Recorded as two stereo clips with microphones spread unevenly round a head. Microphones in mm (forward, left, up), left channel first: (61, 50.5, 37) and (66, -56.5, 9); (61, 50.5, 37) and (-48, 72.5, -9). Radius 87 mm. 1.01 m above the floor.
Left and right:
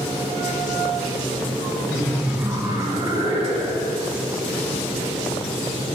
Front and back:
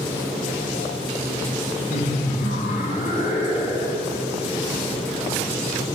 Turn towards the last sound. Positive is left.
turn(degrees=-75)